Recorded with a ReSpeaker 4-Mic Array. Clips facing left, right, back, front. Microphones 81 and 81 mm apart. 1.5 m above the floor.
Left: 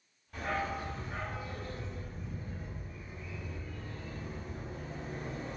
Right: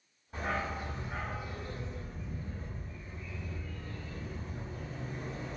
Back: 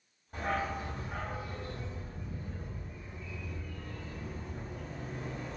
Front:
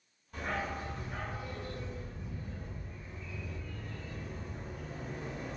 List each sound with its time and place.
0.3 s a dog barking: 145° right, 1.9 m; by 5.6 s 80° left, 2.0 m